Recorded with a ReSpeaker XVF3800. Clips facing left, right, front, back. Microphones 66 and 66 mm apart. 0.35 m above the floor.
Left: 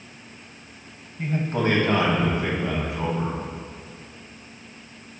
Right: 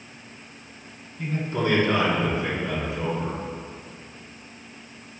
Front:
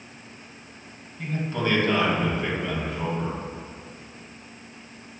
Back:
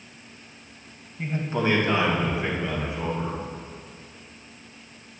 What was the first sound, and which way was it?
A man speaking, 125° left.